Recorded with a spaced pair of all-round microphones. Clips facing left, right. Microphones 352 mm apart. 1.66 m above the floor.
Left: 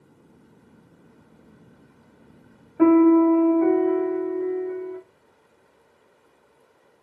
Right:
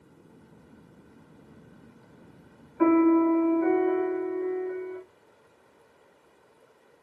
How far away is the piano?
About 1.7 m.